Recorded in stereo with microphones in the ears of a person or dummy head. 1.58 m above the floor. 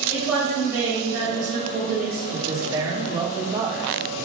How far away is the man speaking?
About 0.8 m.